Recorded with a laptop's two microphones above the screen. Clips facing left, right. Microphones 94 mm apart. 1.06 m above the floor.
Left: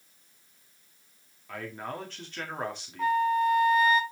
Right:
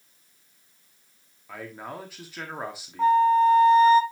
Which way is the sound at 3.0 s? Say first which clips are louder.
Right 7 dB; 30° right (ahead or behind).